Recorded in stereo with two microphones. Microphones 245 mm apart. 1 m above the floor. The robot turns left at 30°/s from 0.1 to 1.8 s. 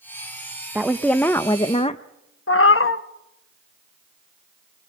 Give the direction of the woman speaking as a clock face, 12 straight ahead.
6 o'clock.